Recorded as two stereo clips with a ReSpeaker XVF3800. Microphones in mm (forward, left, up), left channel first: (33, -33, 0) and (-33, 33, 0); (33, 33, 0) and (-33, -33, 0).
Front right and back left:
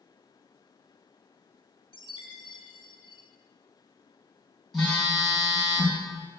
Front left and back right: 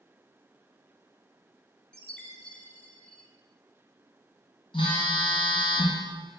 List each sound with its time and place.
1.9 s a chime: 35° right, 1.9 m
4.7 s a phone buzzing: 45° left, 4 m